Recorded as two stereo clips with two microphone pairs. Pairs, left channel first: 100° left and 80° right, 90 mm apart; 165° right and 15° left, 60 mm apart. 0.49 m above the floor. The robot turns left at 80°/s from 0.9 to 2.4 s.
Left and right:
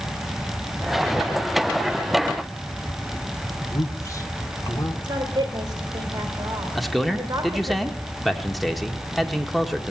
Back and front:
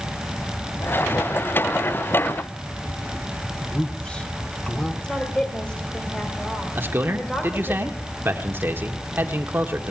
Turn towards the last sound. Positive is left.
turn(degrees=15)